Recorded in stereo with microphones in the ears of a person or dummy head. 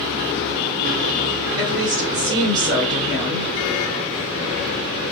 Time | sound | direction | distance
1.6 | a woman speaking | 70° right (ahead or behind) | 1.5 m